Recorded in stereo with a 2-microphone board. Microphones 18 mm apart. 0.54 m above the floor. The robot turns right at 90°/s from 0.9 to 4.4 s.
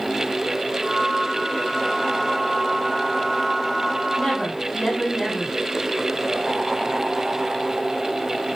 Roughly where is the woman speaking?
Left.